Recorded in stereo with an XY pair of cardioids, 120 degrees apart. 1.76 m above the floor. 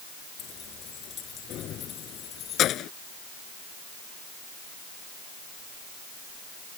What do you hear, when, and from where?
0.4 s keys jangling: 60° left; by 2.9 s 65° left